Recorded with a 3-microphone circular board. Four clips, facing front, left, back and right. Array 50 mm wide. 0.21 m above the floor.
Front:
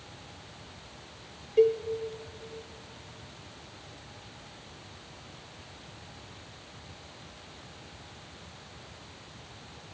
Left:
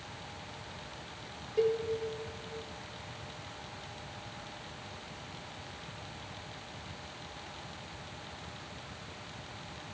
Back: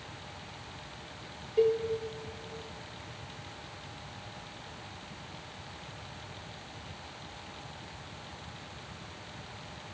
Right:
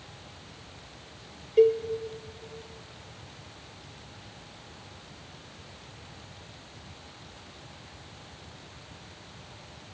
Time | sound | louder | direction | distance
1.6 | a cowbell | right 9 dB, front 3 dB | 65° right | 0.8 m